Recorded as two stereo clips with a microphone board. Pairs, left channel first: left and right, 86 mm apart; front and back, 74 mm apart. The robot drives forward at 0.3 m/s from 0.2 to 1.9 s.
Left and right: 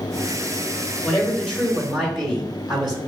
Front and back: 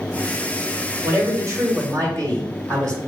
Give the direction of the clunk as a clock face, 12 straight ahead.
I don't hear a clunk.